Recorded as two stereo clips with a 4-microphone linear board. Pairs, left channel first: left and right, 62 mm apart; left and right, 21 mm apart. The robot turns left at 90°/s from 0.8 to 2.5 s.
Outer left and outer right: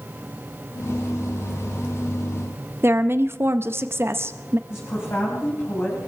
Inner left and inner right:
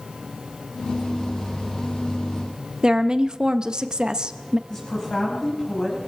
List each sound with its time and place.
2.8 s a woman speaking: 40° right (ahead or behind), 0.7 m
4.7 s a woman speaking: 40° left (ahead or behind), 5 m